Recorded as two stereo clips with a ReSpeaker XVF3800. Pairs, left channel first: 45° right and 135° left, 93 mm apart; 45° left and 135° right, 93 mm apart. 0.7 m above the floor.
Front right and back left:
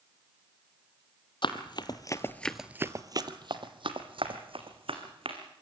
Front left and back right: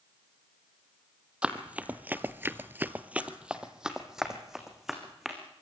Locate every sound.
1.4 s running footsteps: 55° right, 1.4 m; by 5.4 s 140° left, 3.5 m